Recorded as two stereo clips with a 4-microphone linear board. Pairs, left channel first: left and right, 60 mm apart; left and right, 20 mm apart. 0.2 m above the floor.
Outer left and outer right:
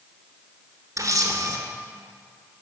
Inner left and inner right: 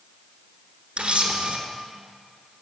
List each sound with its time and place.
1.0 s a camera shutter: 65° right (ahead or behind), 0.9 m